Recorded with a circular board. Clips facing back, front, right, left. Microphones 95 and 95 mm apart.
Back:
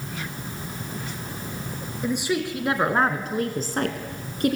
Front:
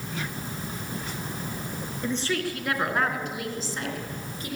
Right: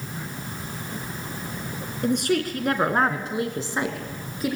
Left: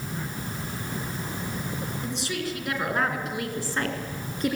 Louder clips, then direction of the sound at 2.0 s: Back 3 dB, right 12 dB; 100° right.